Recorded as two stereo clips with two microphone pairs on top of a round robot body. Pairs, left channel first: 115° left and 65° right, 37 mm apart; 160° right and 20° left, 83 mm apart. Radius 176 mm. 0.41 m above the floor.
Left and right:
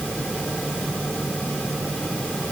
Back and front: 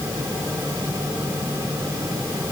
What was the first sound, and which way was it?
Only background noise.